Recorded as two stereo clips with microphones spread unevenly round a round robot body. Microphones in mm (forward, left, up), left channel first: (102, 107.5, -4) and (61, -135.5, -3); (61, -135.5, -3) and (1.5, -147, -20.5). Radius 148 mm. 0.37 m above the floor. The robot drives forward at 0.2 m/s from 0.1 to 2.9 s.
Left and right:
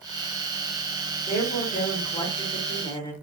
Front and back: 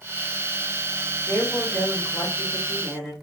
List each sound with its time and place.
1.3 s a woman speaking: 75° left, 0.9 m; by 3.1 s 130° left, 0.9 m